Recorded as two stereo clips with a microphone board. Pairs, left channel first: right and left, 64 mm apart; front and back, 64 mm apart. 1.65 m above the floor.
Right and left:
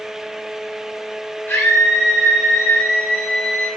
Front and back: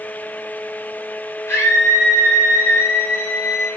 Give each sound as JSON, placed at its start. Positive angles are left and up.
{"t": 1.5, "sound": "a scream", "azimuth_deg": -30, "distance_m": 5.0}